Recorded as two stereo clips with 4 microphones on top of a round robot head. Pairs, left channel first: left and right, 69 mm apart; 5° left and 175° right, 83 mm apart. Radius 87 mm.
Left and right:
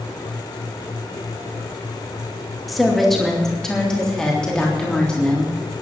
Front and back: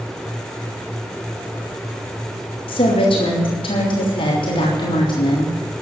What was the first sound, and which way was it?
A woman speaking, straight ahead.